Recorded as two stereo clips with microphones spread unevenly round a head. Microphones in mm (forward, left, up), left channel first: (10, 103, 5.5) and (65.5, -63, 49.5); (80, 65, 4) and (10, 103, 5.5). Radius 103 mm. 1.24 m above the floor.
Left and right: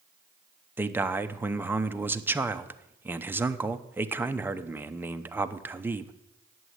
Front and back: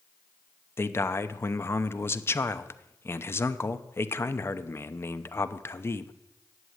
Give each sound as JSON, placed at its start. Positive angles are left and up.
{"t": 0.8, "sound": "a man speaking", "azimuth_deg": 15, "distance_m": 0.8}